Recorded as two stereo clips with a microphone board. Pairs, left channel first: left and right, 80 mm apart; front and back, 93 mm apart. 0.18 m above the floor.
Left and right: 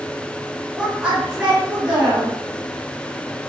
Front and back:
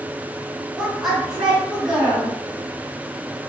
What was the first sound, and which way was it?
A woman speaking, 85° right.